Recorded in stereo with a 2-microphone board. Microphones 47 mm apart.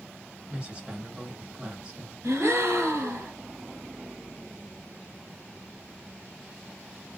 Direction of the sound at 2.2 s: 65° right (ahead or behind).